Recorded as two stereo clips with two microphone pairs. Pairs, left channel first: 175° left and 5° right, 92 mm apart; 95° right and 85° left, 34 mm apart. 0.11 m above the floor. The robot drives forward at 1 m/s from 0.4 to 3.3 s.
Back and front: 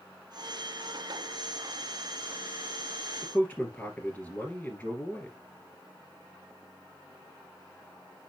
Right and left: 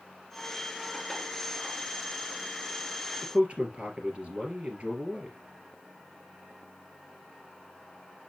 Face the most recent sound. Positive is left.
turn(degrees=120)